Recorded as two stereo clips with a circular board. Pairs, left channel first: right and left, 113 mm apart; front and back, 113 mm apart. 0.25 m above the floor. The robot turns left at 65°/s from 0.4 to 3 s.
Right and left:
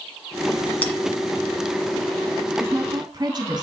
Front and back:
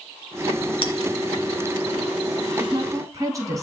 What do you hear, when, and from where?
0.8 s a bell: 15° right, 1.9 m; by 0.9 s 25° right, 1.9 m
2.6 s a woman speaking: 155° left, 2 m; by 3.6 s 130° left, 2 m